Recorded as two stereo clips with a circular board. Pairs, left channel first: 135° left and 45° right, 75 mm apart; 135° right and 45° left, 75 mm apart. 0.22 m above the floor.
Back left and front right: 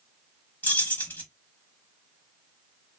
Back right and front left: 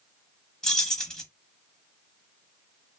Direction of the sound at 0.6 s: 150° left.